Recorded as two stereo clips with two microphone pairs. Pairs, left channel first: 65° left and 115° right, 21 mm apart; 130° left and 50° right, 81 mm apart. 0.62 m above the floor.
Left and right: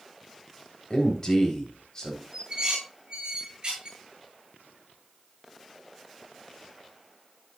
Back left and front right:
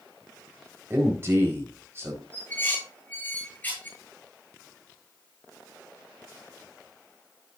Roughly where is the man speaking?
Ahead.